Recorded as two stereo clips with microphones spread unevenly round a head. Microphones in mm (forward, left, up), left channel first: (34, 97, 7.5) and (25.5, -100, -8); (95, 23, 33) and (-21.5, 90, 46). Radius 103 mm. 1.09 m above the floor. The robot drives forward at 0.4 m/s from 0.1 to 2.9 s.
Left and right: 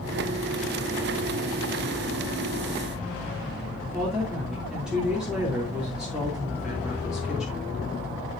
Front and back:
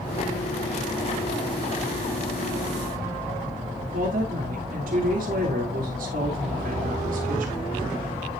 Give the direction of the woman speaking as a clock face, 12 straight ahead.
6 o'clock.